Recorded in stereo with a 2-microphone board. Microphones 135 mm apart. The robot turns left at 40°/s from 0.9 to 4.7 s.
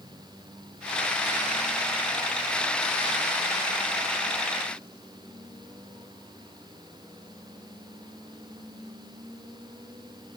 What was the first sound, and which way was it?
Only background noise.